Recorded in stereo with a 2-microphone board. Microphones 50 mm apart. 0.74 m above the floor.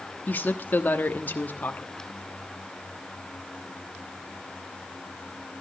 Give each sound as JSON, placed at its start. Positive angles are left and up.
{"t": 0.3, "sound": "a woman speaking", "side_deg": 40, "distance_m": 1.2}